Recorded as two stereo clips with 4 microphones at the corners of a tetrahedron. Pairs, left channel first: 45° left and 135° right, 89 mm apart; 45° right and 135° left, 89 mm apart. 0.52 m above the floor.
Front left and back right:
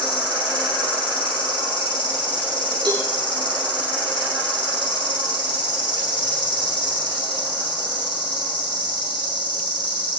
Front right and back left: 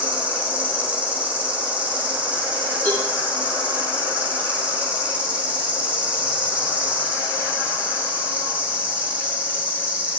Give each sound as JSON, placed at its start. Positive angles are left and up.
{"t": 0.0, "sound": "an insect", "azimuth_deg": 65, "distance_m": 5.5}
{"t": 2.9, "sound": "a cowbell", "azimuth_deg": -115, "distance_m": 7.5}